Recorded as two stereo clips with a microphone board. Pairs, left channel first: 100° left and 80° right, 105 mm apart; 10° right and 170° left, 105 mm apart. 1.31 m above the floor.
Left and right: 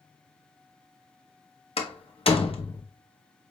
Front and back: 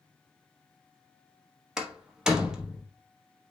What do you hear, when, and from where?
1.8 s a door slam: 85° left, 0.8 m